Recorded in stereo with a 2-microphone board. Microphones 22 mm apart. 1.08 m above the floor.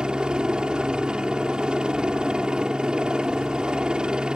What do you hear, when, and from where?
0.0 s a helicopter: 40° right (ahead or behind)